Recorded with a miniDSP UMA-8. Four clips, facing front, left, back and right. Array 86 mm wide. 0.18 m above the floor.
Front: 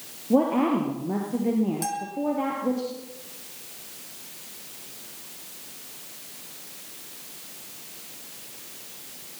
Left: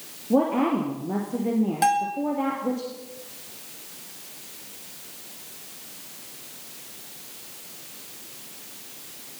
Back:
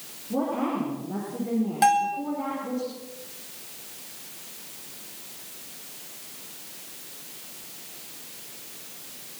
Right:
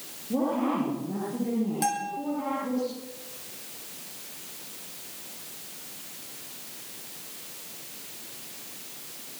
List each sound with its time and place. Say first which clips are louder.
0.3 s a woman speaking: left 5 dB, front 6 dB; 45° left, 4.5 m
1.8 s a bell: left 7 dB, back 9 dB; 150° left, 1.9 m